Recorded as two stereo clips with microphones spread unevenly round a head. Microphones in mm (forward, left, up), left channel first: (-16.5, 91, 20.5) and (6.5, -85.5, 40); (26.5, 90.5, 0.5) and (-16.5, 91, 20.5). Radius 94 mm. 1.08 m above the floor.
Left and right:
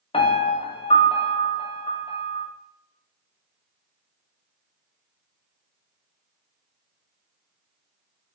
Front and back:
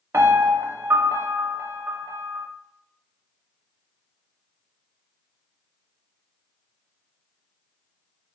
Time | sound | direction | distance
0.1 | a piano | 155° left | 0.9 m